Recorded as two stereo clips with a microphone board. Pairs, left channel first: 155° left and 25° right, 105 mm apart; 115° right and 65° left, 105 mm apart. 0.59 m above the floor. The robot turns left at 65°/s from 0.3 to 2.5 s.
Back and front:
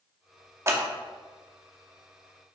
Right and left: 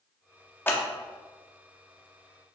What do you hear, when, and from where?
0.7 s scissors: 60° right, 0.7 m; by 0.8 s 65° right, 0.7 m